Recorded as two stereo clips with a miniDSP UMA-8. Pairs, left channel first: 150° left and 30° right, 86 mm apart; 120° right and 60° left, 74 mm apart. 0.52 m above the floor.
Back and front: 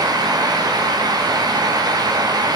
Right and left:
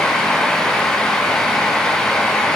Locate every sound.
Only background noise.